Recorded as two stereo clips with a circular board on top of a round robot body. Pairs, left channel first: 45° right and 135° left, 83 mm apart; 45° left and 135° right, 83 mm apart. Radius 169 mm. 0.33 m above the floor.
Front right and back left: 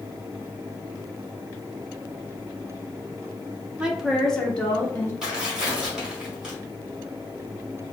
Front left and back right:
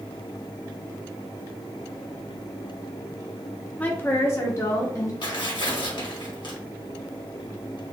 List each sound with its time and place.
3.8 s a woman speaking: 75° left, 1.2 m; by 5.1 s 15° left, 1.7 m
5.2 s tearing paper: 55° left, 1.7 m